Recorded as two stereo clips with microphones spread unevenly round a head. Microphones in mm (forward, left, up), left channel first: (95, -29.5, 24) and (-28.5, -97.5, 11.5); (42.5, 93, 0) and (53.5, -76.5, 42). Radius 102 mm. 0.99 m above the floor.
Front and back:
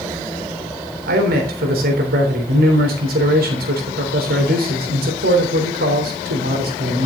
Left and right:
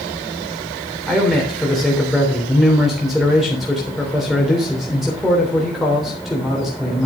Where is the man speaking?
175° right, 3 m.